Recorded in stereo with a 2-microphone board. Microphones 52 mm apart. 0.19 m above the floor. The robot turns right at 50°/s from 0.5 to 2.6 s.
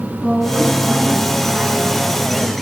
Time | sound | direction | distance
0.2 | a woman speaking | 155° right | 1.4 m